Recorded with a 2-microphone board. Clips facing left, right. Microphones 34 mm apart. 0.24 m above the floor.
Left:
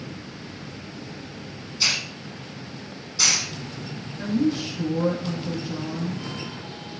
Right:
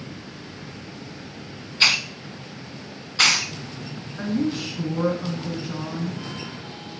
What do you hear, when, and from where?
1.8 s a hiss: 45° right (ahead or behind), 0.6 m
4.2 s a woman speaking: 55° right (ahead or behind), 2 m